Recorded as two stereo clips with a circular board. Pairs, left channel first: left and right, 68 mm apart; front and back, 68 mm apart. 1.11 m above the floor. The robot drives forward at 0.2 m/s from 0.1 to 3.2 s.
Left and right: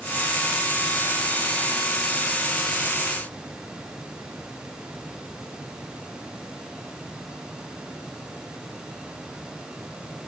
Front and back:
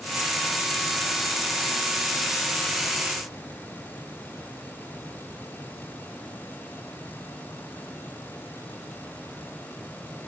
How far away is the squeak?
I don't hear a squeak.